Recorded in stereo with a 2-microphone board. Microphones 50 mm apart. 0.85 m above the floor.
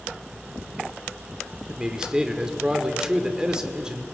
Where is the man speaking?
15° right (ahead or behind), 2 m.